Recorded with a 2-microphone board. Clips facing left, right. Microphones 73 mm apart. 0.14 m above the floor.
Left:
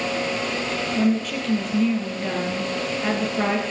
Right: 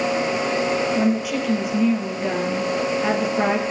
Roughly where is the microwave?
I don't hear a microwave.